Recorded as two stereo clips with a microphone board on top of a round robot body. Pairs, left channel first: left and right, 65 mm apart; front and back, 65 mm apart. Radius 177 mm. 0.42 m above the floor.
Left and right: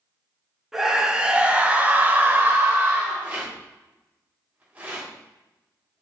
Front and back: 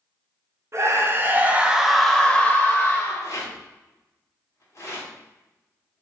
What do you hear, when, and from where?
0.7 s a scream: 170° right, 1.2 m; by 3.3 s 35° right, 1.3 m
3.2 s a rattle: 30° right, 2 m